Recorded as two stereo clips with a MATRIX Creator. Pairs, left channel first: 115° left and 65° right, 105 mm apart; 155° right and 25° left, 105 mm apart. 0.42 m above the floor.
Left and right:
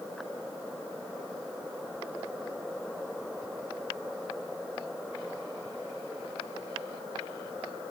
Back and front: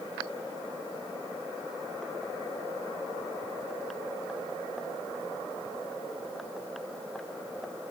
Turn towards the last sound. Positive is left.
No sound to turn to.